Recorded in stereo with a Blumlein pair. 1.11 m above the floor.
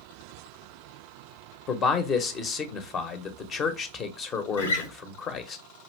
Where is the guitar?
70° left, 1.3 m.